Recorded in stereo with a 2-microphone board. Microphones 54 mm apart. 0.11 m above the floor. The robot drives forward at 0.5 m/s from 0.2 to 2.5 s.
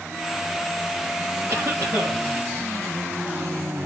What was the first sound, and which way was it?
A cough, 55° right (ahead or behind).